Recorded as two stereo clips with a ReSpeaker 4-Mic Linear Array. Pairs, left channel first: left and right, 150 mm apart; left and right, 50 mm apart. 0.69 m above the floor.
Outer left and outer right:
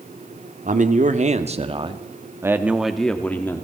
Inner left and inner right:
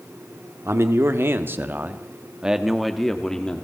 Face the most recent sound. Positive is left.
turn(degrees=15)  # may be behind; listen again after turning